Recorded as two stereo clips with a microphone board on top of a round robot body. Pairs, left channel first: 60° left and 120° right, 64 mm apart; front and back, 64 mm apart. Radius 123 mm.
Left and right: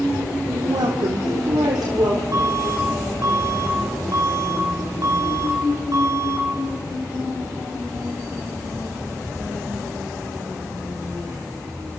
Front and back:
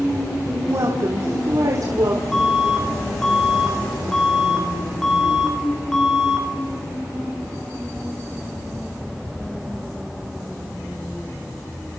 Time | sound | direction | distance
0.5 | a woman speaking | 135° right | 2.5 m
2.3 | an alarm | 85° right | 5.5 m